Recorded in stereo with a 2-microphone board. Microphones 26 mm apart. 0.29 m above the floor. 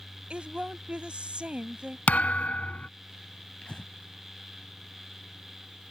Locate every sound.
0.3 s a woman speaking: 45° right (ahead or behind)
2.1 s a thud: 70° left (ahead or behind)
3.6 s breathing: 45° left (ahead or behind)